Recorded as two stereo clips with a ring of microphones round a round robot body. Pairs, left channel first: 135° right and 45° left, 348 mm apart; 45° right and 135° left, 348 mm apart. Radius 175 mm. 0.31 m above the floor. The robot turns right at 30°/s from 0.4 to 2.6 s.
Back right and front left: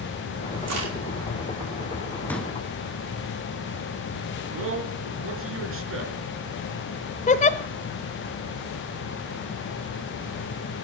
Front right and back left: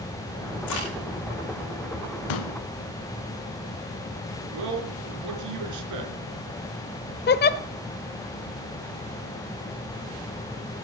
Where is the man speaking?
95° left, 4 m.